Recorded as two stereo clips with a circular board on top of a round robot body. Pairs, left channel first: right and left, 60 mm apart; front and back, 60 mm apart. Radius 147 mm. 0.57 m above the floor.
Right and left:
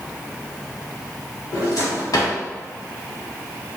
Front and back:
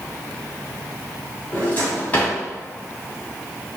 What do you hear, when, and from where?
1.5 s a drawer: 65° right, 1.4 m